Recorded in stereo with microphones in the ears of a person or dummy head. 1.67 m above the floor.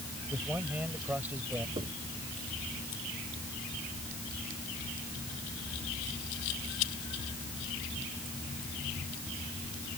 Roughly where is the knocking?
Right.